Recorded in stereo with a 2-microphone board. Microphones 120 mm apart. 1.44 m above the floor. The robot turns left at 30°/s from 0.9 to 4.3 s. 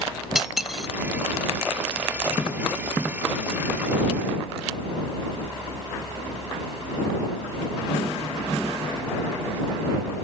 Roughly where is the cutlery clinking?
Centre.